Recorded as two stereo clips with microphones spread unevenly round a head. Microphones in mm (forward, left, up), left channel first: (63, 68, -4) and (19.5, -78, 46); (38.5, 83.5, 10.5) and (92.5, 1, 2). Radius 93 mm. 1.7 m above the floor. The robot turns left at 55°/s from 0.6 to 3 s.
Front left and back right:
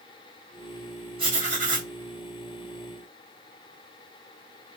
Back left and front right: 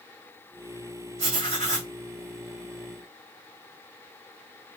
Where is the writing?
55° right, 2.5 m; by 1.9 s 95° right, 2.5 m.